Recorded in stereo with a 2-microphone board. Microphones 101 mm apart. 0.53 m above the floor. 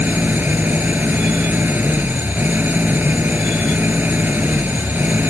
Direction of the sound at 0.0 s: 20° right (ahead or behind).